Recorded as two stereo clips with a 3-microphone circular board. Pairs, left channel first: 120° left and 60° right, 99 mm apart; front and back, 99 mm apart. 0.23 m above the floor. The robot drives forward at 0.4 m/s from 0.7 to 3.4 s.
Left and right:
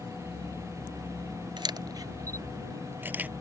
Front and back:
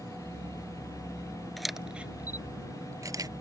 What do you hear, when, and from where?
1.6 s a camera shutter: 90° right; by 3.3 s 130° right